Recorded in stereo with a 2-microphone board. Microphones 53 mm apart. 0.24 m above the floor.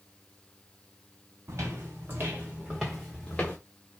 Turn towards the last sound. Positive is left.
turn(degrees=30)  # may be behind; listen again after turning